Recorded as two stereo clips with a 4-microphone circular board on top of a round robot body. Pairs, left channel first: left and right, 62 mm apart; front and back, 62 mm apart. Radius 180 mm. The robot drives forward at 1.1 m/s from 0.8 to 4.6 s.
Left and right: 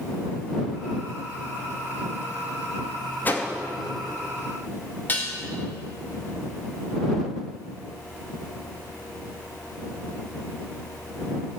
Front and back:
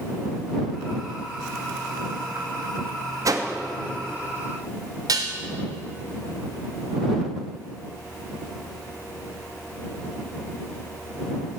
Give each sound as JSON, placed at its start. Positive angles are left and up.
{"t": 3.2, "sound": "a whoosh", "azimuth_deg": 150, "distance_m": 2.5}
{"t": 5.1, "sound": "dishes clattering", "azimuth_deg": 155, "distance_m": 3.0}